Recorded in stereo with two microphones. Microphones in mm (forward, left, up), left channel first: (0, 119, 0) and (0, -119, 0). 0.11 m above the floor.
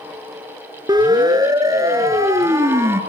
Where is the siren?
15° right (ahead or behind), 2 m; by 3.0 s 10° right (ahead or behind), 2.5 m.